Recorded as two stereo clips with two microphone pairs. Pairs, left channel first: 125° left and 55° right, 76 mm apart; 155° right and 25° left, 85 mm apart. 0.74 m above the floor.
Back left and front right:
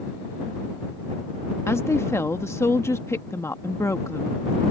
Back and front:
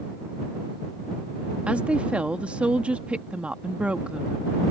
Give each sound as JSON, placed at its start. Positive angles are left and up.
{"t": 1.7, "sound": "a woman speaking", "azimuth_deg": 90}